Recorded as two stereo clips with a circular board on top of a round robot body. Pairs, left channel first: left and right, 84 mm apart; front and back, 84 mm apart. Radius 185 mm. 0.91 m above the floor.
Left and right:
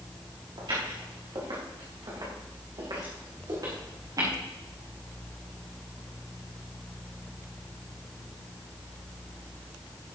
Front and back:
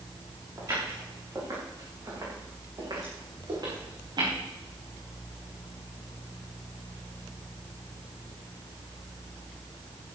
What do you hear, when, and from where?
0.6 s footsteps: 125° right, 7.5 m; by 4.3 s 140° right, 5 m